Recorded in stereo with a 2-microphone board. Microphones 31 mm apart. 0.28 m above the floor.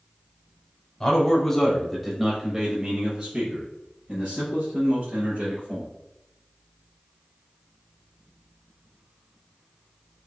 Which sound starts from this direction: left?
A man speaking, at 1.0 s.